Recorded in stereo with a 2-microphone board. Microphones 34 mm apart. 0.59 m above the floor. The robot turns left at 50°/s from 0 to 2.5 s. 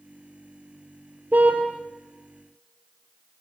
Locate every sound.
1.3 s a car horn: 55° right (ahead or behind), 4.5 m; by 1.6 s 40° right (ahead or behind), 4.5 m